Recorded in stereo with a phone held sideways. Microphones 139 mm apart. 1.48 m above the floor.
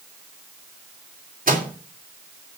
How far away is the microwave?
About 3 m.